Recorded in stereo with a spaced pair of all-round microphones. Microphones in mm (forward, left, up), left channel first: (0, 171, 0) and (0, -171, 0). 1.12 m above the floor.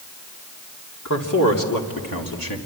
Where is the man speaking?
60° left (ahead or behind), 2.5 m; by 2.6 s 80° left, 3 m.